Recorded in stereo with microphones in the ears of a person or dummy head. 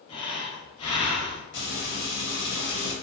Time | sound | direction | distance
0.1 | breathing | 25° left (ahead or behind) | 0.6 m
1.5 | frying | 55° left (ahead or behind) | 1.0 m